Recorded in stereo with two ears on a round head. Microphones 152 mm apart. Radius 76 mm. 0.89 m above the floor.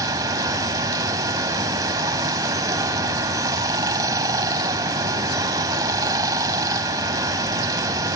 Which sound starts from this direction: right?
Running water, at 0.0 s.